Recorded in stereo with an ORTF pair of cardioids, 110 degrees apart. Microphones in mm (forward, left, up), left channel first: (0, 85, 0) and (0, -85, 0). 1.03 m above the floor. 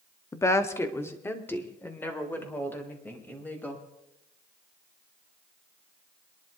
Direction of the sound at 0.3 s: 15° left.